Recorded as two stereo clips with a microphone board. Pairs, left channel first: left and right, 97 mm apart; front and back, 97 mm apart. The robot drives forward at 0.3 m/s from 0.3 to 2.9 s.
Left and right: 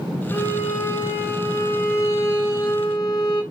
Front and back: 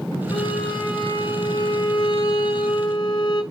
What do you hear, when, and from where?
0.3 s a violin: 30° left, 3.5 m; by 3.4 s 40° left, 2.5 m